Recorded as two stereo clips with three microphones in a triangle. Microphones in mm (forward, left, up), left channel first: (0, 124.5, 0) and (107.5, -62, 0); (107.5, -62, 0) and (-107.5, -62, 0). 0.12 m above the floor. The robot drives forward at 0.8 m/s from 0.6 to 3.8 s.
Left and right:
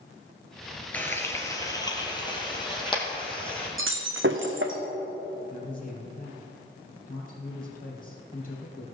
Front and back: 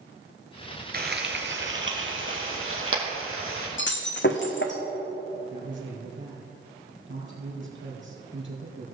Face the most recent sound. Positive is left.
turn(degrees=165)